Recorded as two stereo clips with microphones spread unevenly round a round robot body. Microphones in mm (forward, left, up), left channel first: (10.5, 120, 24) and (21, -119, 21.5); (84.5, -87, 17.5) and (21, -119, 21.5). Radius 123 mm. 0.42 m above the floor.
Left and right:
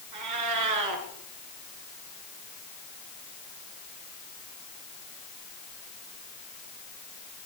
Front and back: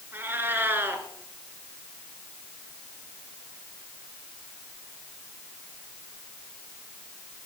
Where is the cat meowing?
90° right, 3.5 m.